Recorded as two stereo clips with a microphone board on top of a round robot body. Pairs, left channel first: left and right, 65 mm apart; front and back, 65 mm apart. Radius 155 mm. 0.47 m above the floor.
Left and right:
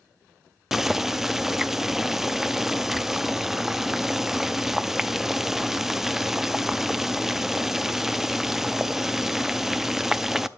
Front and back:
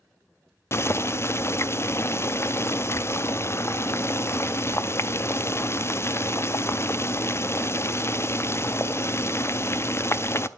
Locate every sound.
0.7 s boiling: 5° right, 0.7 m